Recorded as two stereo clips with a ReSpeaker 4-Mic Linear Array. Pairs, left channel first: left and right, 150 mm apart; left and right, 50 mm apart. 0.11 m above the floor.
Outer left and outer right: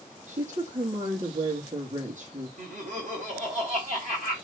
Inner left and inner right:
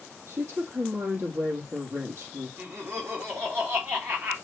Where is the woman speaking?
60° right (ahead or behind), 3.5 m.